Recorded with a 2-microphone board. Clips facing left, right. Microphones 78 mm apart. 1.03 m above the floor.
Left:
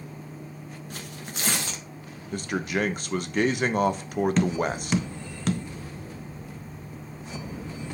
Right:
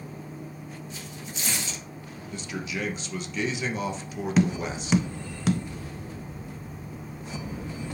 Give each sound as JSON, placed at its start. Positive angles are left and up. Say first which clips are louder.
{"t": 0.9, "sound": "tearing paper", "louder": "left 1 dB", "side_deg": 55, "distance_m": 1.1}
{"t": 2.3, "sound": "a man speaking", "louder": "left 6 dB", "side_deg": 50, "distance_m": 0.8}
{"t": 4.4, "sound": "tapping", "louder": "even", "side_deg": -5, "distance_m": 0.6}